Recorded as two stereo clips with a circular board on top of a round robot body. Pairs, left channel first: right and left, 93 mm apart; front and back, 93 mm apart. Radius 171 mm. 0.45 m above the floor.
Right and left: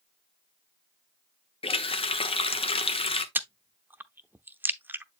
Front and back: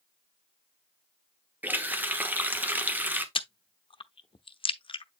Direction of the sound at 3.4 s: 20° left.